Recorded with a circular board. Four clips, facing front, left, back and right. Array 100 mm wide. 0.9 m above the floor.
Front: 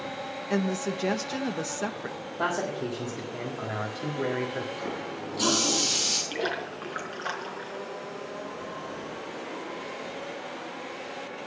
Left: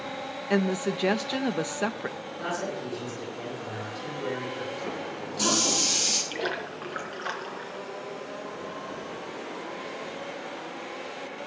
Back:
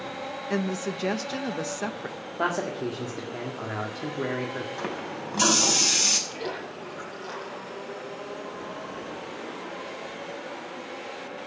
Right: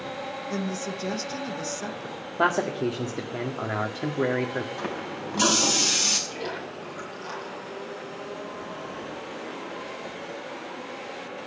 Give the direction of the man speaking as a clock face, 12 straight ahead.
3 o'clock.